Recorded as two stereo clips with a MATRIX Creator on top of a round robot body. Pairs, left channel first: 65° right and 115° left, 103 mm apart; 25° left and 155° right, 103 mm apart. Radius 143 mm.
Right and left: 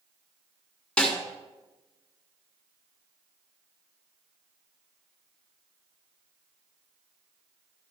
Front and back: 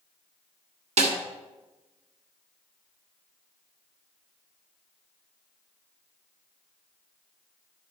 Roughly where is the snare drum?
Behind right.